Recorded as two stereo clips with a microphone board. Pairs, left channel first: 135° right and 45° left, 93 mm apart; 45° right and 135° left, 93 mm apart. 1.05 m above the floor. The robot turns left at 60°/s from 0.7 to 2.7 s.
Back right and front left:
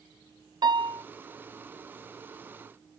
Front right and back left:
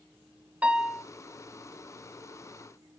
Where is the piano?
60° left, 0.9 m; by 1.0 s 40° left, 0.9 m.